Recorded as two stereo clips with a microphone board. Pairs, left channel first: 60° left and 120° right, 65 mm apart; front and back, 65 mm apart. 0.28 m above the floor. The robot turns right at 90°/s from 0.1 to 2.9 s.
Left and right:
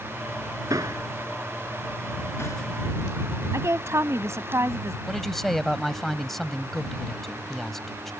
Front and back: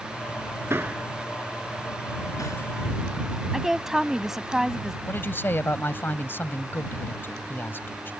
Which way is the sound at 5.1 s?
25° right.